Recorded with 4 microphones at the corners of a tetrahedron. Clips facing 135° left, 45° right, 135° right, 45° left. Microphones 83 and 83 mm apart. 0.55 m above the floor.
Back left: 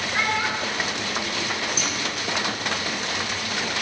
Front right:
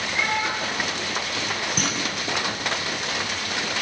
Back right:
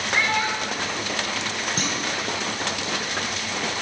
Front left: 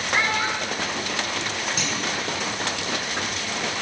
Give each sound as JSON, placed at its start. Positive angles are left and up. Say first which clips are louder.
{"t": 0.1, "sound": "a child speaking", "louder": "back left 1 dB, even", "azimuth_deg": 115, "distance_m": 4.0}
{"t": 1.8, "sound": "a clunk", "louder": "front right 1 dB, back right 1 dB", "azimuth_deg": -85, "distance_m": 3.0}